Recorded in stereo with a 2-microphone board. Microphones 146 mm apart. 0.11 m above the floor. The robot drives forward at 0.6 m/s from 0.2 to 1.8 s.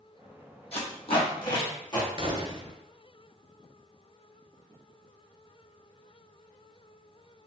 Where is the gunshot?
40° right (ahead or behind), 0.6 m.